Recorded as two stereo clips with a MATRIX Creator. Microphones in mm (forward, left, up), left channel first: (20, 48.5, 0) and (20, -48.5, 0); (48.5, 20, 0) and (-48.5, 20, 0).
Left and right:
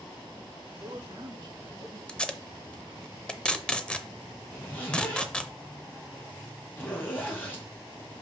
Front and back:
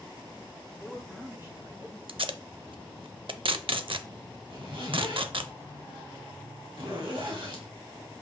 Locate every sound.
0.8 s a man speaking: 100° right, 2.5 m; by 2.0 s 135° right, 2.5 m
2.1 s tape being pulled: 170° left, 0.5 m
4.5 s a zipper: 160° left, 2.5 m